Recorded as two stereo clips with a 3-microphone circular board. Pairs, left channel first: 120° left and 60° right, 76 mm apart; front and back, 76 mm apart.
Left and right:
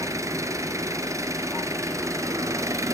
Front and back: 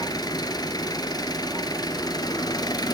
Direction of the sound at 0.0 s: 15° right.